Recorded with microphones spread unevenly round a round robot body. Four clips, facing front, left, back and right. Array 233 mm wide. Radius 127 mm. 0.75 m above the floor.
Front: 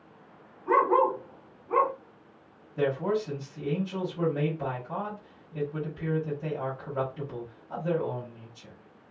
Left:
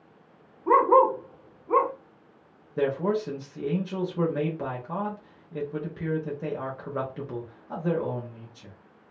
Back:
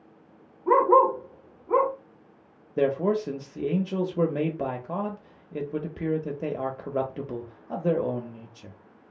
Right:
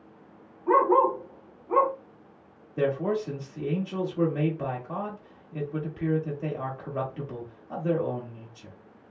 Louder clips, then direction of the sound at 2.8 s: Left 1 dB, back 3 dB; 170° left.